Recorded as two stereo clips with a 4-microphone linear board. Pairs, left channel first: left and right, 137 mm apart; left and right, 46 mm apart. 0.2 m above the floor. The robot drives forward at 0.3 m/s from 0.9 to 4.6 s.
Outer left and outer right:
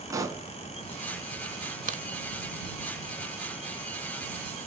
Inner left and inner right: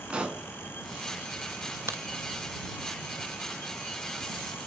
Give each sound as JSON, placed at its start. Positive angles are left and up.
{"t": 0.1, "sound": "a pop", "side_deg": -20, "distance_m": 1.1}
{"t": 1.9, "sound": "a crack", "side_deg": -70, "distance_m": 0.6}